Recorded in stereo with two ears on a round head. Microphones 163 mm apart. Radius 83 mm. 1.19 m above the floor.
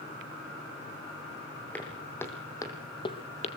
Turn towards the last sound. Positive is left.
turn(degrees=40)  # may be behind; listen again after turning